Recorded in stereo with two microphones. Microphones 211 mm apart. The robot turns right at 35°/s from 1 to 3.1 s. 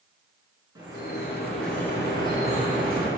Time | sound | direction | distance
0.8 | dripping | 20° right | 4.5 m